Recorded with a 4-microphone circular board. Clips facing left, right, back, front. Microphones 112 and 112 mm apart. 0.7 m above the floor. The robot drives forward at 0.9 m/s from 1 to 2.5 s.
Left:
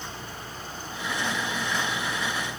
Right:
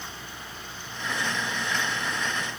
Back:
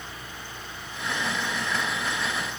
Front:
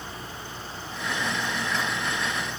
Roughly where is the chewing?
I don't hear chewing.